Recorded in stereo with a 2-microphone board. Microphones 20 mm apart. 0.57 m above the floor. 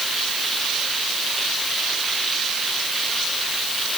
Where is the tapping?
I don't hear tapping.